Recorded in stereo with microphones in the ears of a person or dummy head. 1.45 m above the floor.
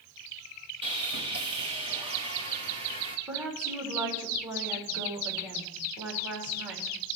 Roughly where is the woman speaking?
Centre.